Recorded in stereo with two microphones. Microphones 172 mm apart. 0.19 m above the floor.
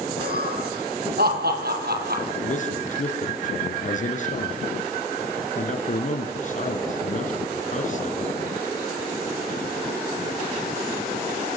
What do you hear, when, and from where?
0.2 s laughter: 65° right (ahead or behind), 7 m; by 2.2 s 70° right (ahead or behind), 4.5 m
2.4 s a man speaking: 50° left (ahead or behind), 3 m